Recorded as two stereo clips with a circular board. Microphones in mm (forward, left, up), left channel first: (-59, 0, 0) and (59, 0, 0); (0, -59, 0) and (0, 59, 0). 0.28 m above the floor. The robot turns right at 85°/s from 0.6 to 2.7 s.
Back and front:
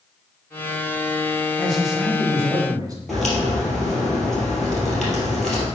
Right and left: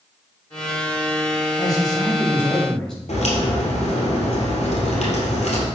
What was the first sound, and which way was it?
A man speaking, 105° right.